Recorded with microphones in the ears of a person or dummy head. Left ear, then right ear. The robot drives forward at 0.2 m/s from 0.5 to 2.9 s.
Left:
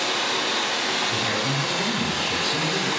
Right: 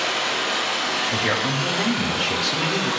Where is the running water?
5° left (ahead or behind), 1.3 m; by 3.0 s 10° left (ahead or behind), 0.9 m.